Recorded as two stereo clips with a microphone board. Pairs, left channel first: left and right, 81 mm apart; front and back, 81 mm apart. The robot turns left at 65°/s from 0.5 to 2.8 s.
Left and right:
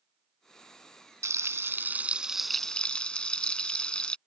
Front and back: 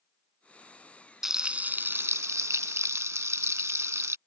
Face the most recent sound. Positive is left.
turn(degrees=160)